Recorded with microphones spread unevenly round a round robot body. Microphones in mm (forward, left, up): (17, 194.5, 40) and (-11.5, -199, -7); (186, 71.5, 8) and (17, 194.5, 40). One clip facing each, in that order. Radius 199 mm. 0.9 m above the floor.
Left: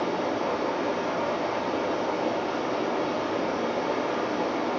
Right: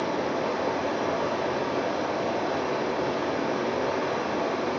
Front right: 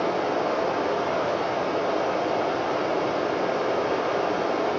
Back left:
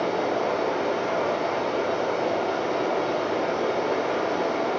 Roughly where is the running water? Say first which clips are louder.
Even, even; behind right.